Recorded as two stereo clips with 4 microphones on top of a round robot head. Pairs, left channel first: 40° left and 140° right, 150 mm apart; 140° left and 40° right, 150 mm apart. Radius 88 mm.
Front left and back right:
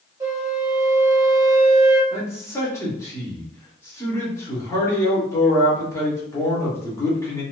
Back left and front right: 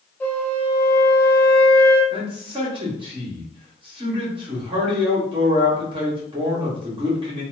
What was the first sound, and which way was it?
A flute, 160° right.